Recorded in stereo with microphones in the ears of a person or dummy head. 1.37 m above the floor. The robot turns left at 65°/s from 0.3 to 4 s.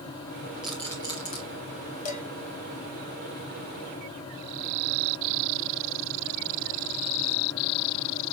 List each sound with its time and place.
0.6 s a rattle: 10° right (ahead or behind), 1.9 m; by 1.4 s 40° left (ahead or behind), 1.9 m
2.0 s dishes clattering: 55° left (ahead or behind), 1.9 m; by 2.2 s 45° left (ahead or behind), 1.9 m